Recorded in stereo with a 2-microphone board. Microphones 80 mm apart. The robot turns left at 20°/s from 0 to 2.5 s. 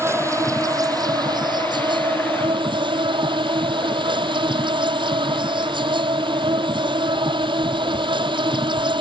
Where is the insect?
30° right; by 9.0 s 80° right.